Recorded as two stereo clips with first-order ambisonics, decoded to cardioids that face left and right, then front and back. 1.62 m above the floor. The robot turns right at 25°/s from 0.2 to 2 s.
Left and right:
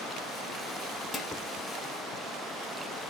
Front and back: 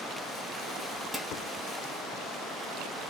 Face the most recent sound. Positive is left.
turn(degrees=100)